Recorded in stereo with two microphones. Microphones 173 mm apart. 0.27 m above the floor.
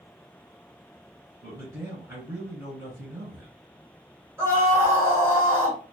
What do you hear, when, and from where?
1.4 s a man speaking: 15° right (ahead or behind), 2.0 m
4.4 s a scream: 15° right (ahead or behind), 1.6 m